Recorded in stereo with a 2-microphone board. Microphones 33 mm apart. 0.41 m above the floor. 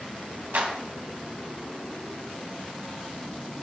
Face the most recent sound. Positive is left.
turn(degrees=-60)  # may be behind; listen again after turning